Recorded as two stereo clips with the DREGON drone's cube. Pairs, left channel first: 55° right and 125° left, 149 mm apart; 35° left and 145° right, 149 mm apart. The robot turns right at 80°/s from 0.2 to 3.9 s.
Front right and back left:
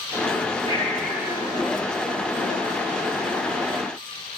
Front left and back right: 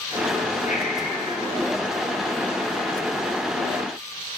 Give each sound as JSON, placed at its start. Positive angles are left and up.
{"t": 0.7, "sound": "breathing", "azimuth_deg": 5, "distance_m": 1.2}